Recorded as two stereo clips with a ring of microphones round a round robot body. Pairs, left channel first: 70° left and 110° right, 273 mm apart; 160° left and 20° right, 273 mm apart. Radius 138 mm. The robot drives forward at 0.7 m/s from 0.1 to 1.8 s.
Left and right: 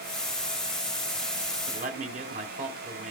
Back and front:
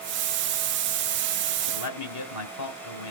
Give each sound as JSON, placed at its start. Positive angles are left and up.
{"t": 1.7, "sound": "a man speaking", "azimuth_deg": -175, "distance_m": 2.0}